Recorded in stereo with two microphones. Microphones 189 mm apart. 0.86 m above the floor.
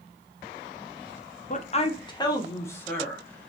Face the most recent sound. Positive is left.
turn(degrees=5)  # may be behind; listen again after turning